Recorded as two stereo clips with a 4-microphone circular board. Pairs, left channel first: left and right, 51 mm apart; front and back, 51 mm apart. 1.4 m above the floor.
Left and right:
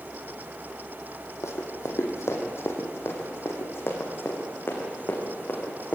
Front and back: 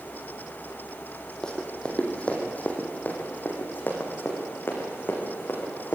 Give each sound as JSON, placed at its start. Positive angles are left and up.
{"t": 1.4, "sound": "running footsteps", "azimuth_deg": 75, "distance_m": 3.5}